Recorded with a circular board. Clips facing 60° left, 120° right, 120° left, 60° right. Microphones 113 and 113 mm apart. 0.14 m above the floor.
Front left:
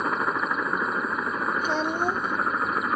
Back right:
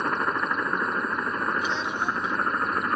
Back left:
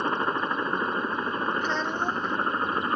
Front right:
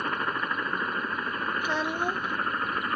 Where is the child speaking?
20° left.